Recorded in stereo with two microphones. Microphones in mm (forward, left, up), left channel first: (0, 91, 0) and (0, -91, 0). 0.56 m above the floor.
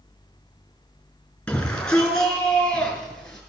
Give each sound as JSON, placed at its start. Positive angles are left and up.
{"t": 1.5, "sound": "a shout", "side_deg": 5, "distance_m": 6.5}